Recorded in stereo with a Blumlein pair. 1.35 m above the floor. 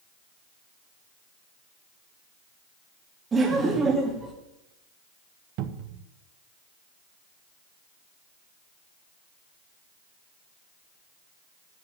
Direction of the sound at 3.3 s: 15° right.